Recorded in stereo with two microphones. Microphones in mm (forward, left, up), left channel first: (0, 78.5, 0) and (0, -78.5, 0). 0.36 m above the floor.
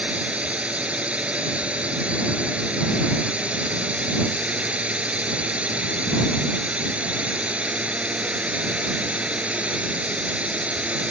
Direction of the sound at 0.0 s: 5° right (ahead or behind).